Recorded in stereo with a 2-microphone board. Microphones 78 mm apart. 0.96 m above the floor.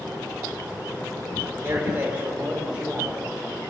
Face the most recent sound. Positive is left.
turn(degrees=-10)  # may be behind; listen again after turning